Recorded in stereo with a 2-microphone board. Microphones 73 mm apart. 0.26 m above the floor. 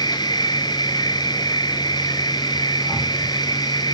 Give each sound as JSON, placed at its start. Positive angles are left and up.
{"t": 0.0, "sound": "an insect", "side_deg": 80, "distance_m": 1.0}